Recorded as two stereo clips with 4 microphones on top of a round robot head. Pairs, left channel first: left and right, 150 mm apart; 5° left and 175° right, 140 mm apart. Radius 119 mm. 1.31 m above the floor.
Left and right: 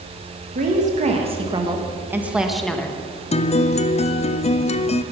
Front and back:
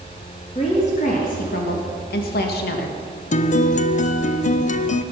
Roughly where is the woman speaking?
Ahead right.